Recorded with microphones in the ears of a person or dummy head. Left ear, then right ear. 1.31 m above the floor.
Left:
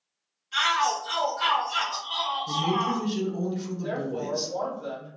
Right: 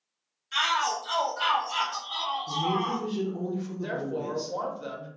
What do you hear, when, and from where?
0.5 s a shout: 65° right (ahead or behind), 0.9 m; by 3.0 s 25° left (ahead or behind), 0.9 m
2.5 s a woman speaking: 45° left (ahead or behind), 0.8 m
3.8 s a woman speaking: 60° right (ahead or behind), 1.0 m